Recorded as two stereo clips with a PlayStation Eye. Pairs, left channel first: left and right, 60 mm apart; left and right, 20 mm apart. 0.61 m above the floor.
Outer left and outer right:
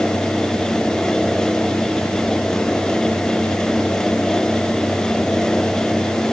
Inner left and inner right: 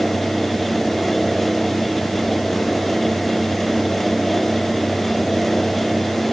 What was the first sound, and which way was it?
Only background noise.